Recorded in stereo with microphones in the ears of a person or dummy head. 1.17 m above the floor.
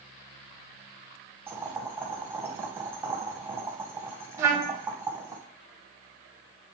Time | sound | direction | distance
1.5 | boiling | 15° right (ahead or behind) | 0.9 m
4.4 | a trumpet | 20° right (ahead or behind) | 1.4 m